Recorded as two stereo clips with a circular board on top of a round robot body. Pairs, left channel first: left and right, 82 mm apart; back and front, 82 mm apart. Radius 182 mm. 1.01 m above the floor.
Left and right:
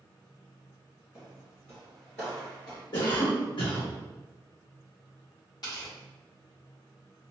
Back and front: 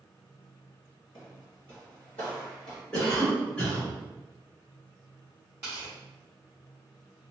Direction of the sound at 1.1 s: 150° right.